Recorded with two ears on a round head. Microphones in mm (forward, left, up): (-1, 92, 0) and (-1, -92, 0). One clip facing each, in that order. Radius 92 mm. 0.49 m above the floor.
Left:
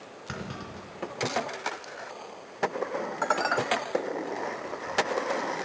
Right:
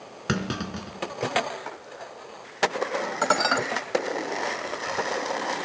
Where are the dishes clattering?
55° right (ahead or behind), 1.8 m.